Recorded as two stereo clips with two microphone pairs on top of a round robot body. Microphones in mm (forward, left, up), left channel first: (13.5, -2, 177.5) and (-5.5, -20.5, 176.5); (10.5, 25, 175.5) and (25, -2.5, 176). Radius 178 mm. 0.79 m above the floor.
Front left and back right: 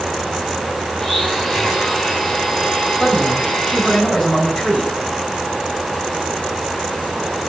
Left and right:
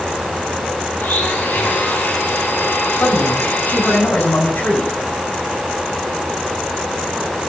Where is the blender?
125° left, 4 m.